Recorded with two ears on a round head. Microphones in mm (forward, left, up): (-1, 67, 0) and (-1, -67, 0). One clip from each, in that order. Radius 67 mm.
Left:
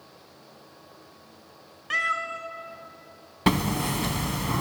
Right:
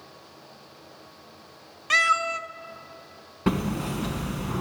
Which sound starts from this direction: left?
Hammering, at 3.5 s.